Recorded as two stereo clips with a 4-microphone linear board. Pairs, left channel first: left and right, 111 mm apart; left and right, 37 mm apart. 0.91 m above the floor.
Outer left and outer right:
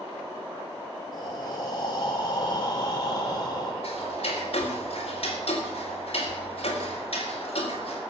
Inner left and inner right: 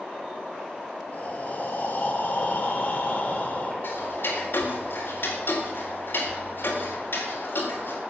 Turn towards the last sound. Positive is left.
turn(degrees=60)  # may be behind; listen again after turning